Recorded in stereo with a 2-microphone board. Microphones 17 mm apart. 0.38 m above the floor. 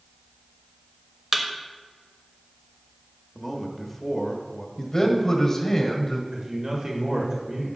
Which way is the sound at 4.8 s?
30° left (ahead or behind).